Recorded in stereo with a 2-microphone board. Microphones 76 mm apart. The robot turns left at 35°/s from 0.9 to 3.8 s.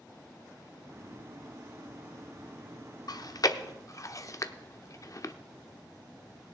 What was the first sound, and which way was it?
Chewing, 55° left (ahead or behind).